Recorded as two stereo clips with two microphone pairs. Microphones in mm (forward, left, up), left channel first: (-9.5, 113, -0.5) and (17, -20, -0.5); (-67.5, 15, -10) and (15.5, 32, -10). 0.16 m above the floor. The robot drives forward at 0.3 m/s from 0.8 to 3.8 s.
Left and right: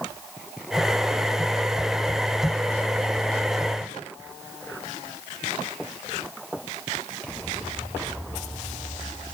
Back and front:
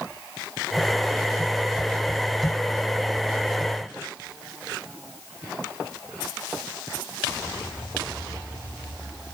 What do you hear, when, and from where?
Only background noise.